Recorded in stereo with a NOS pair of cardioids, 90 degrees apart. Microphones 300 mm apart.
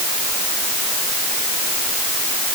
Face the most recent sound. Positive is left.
No sound to turn to.